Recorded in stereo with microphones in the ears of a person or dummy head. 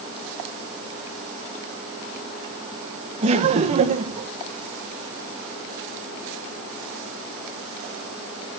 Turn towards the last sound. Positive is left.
turn(degrees=-35)  # may be behind; listen again after turning